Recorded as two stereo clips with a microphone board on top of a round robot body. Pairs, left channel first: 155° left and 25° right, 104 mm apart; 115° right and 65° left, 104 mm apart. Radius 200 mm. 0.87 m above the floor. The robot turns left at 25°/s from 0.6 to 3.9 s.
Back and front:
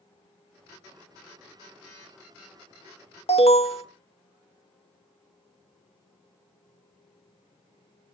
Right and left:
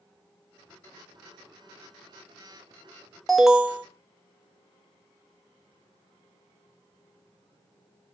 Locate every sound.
3.3 s an alarm: 160° left, 1.9 m; by 3.9 s 145° left, 1.9 m